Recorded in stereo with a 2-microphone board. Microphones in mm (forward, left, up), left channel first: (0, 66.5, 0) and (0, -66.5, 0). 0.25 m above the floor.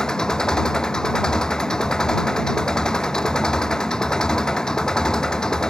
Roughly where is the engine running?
Centre.